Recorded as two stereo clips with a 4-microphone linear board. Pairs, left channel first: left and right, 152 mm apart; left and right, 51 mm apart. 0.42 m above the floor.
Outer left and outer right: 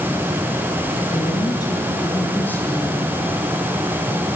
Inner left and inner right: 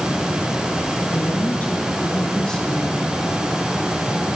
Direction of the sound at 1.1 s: 30° left (ahead or behind).